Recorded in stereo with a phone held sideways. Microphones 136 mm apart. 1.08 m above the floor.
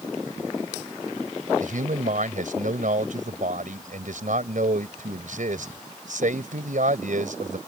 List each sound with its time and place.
1.6 s a man speaking: 75° right (ahead or behind)